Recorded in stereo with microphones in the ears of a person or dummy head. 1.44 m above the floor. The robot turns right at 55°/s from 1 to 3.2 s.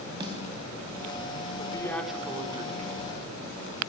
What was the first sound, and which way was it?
A snare drum, 25° right (ahead or behind).